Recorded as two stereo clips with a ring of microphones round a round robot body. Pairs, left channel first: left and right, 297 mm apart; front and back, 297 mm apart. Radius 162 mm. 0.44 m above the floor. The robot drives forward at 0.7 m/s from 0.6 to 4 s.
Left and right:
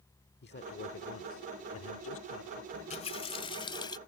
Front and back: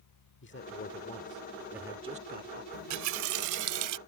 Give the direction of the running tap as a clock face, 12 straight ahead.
7 o'clock.